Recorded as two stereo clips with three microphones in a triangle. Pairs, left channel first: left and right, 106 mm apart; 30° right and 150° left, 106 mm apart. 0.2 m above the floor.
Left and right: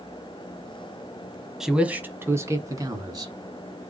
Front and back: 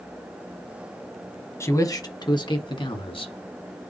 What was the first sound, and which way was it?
A man speaking, 10° right.